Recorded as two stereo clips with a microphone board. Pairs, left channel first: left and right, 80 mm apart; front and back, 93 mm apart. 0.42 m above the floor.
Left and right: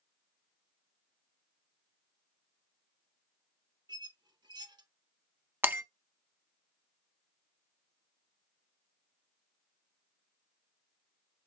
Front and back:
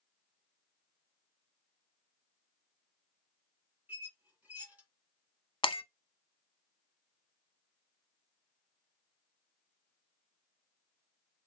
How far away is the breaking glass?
About 0.8 m.